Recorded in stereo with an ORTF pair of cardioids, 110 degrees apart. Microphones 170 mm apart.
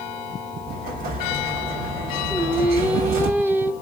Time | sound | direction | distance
0.7 | an explosion | 60° right | 2.5 m
2.3 | singing | 10° right | 1.0 m